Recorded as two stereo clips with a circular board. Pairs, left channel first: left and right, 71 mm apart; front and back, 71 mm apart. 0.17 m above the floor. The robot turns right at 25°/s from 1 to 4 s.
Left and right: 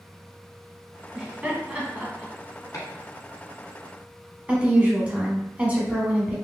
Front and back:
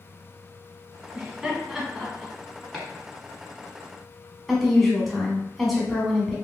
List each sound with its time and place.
1.1 s laughter: 120° right, 1.1 m; by 2.3 s 90° right, 1.1 m
2.7 s chopping: 85° left, 1.3 m; by 2.9 s 90° left, 1.3 m
4.5 s a woman speaking: 90° right, 1.0 m